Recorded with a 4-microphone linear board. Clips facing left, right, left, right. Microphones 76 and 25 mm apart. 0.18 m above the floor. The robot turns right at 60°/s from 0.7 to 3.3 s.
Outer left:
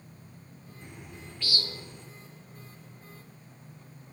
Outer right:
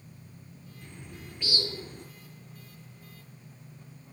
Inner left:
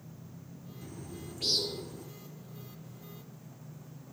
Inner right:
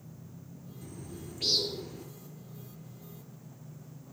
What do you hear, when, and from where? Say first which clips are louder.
0.8 s a bird: even, even; 160° left, 2.5 m; by 2.1 s 120° right, 2.5 m